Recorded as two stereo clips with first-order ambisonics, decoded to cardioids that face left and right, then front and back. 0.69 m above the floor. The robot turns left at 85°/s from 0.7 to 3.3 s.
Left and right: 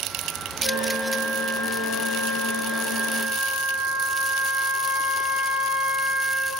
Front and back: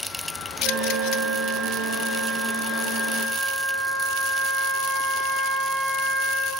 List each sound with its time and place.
0.6 s a flute: 145° left, 0.8 m; by 6.5 s 75° right, 0.8 m